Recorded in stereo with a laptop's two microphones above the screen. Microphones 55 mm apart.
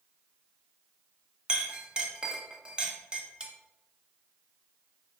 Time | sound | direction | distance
1.5 | a clink | 20° right (ahead or behind) | 0.8 m